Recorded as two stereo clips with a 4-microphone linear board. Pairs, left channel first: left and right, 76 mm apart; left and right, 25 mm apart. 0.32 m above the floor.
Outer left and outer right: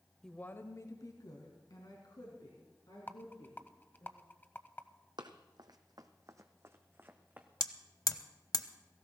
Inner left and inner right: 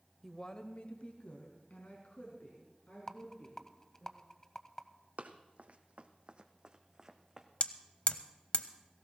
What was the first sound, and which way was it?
A woman speaking, 5° left (ahead or behind).